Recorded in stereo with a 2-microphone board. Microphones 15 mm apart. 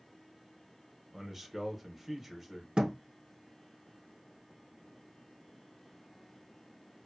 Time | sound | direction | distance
1.1 | a man speaking | 15° right (ahead or behind) | 0.8 m
2.8 | a thud | 50° right (ahead or behind) | 0.5 m